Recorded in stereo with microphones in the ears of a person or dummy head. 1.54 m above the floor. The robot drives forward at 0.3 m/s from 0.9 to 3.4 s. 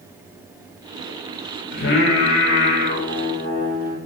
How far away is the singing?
About 1.8 m.